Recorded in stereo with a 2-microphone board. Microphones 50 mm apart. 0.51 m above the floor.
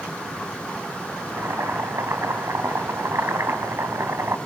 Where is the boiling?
60° right (ahead or behind), 3 m.